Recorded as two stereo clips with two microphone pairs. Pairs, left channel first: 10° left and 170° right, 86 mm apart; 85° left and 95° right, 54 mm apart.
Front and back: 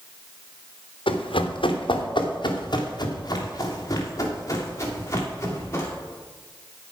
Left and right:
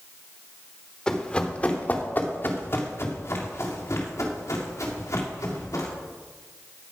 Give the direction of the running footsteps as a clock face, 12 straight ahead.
12 o'clock.